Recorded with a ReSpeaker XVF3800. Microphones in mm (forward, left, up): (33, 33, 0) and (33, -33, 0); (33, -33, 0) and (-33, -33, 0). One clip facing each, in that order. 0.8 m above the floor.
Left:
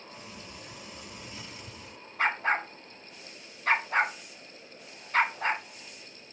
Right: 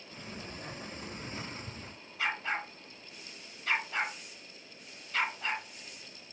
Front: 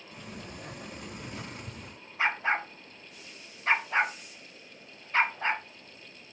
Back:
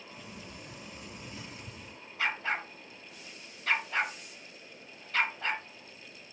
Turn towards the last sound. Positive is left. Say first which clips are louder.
# left 6 dB, front 4 dB
turn(degrees=55)